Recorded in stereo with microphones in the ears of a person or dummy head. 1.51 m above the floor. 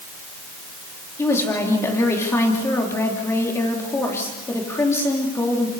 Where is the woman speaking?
20° left (ahead or behind), 3.5 m.